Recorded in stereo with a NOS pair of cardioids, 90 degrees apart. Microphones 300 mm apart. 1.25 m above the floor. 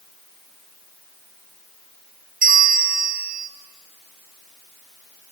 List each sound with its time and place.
2.4 s a bell: 25° right, 1.3 m